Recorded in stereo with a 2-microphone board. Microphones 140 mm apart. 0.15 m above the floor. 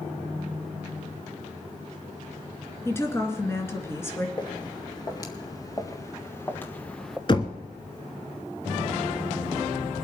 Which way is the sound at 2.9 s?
20° left (ahead or behind).